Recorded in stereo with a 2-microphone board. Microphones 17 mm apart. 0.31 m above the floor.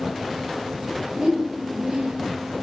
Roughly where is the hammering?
No hammering in this recording.